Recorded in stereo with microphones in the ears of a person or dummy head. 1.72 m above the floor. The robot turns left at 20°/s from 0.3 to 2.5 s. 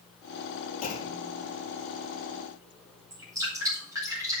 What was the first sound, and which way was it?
A clunk, 35° left (ahead or behind).